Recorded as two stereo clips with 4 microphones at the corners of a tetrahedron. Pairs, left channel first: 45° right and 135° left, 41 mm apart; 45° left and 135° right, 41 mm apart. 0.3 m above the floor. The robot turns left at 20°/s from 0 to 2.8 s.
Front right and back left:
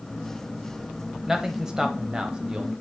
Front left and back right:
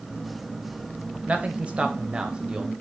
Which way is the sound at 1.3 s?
155° right.